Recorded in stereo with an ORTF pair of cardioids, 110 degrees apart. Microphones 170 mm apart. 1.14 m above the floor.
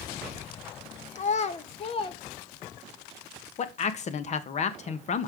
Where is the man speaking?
45° left, 1.2 m.